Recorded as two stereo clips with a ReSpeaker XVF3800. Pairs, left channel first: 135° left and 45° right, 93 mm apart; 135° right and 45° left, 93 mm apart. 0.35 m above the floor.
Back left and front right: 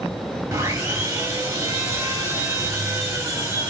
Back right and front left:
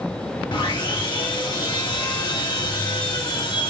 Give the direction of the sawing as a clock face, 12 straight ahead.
3 o'clock.